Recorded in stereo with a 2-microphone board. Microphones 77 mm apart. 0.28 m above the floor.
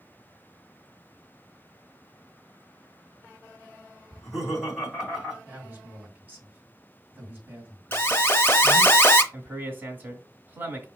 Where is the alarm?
30° left (ahead or behind), 0.6 m.